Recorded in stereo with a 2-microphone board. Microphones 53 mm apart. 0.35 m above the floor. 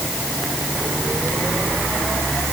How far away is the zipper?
I don't hear a zipper.